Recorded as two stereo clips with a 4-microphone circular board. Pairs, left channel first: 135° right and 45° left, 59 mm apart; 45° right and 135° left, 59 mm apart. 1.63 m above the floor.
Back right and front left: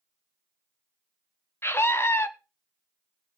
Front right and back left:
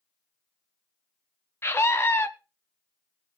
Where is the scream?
85° right, 1.0 m.